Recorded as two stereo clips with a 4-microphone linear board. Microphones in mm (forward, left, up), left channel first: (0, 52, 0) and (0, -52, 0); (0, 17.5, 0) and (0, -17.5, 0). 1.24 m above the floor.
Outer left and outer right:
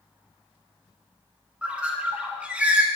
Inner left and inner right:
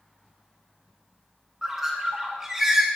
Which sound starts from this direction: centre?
A bird, at 1.6 s.